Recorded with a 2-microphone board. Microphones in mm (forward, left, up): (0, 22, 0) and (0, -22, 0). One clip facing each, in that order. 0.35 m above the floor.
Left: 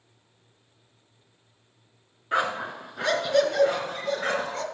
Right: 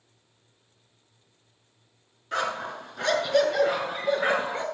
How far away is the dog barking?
About 2 m.